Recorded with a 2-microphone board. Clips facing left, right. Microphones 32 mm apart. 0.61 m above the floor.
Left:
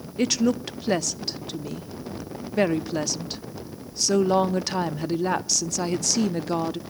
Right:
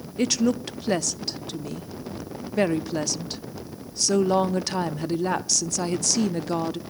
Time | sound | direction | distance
0.2 | a woman speaking | 5° left (ahead or behind) | 0.6 m